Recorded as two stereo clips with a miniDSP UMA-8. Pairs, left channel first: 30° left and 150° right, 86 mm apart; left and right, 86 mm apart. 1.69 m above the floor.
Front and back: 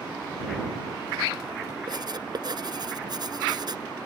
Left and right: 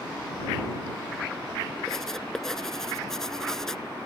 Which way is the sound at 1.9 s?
175° left.